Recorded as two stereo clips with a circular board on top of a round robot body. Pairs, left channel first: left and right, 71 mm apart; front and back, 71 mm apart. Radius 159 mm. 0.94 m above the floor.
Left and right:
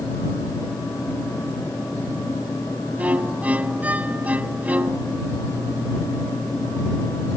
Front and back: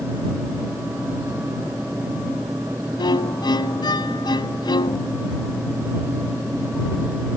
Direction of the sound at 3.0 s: 20° right.